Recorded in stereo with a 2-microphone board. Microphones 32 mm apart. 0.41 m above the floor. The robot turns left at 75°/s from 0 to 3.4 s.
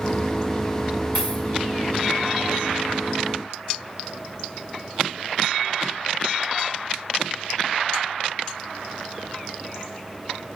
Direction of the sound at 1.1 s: 80° left.